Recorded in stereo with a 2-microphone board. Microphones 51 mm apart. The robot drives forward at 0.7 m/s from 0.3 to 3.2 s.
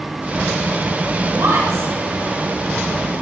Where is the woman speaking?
90° right, 7.5 m; by 1.9 s 85° right, 7.5 m.